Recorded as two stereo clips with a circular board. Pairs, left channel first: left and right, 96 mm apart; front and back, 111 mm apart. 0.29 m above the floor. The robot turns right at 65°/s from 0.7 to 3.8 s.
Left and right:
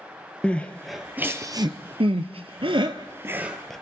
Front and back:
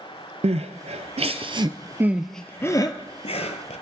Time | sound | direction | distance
0.4 | crying | 165° left | 1.0 m